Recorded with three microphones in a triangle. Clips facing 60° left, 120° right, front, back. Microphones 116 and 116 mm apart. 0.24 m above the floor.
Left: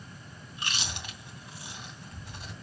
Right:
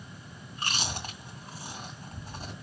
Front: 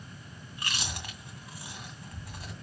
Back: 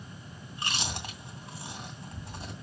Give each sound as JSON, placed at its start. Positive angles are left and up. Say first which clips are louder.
{"t": 0.5, "sound": "chewing", "louder": "right 3 dB, back 3 dB", "azimuth_deg": -135, "distance_m": 2.0}